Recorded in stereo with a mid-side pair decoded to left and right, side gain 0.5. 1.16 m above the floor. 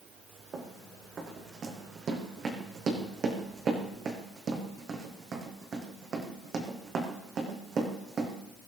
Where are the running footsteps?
45° right, 4 m.